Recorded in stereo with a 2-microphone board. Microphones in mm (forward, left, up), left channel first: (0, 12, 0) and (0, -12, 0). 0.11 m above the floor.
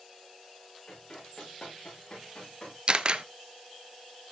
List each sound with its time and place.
0.9 s running footsteps: 35° left (ahead or behind), 8 m; by 2.8 s 30° left (ahead or behind), 9.5 m
2.9 s a camera shutter: 45° right (ahead or behind), 0.6 m